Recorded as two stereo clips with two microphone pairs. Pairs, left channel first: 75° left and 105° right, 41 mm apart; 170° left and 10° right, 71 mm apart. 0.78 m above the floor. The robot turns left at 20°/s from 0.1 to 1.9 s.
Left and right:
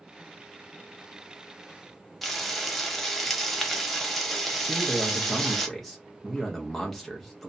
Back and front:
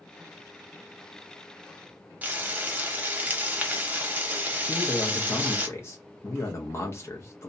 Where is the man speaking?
160° left, 0.6 m.